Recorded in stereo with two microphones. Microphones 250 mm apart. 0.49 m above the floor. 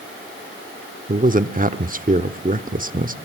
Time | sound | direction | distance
1.1 | a man speaking | 35° right (ahead or behind) | 0.8 m